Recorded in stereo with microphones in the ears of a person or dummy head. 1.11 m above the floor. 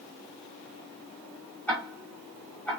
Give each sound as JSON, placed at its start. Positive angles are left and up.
{"t": 1.7, "sound": "ticking", "side_deg": 5, "distance_m": 1.4}